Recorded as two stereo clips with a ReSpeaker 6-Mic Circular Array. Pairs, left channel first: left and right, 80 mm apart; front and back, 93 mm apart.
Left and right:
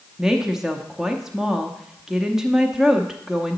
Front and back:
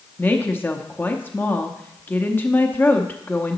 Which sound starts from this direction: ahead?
A woman speaking, at 0.2 s.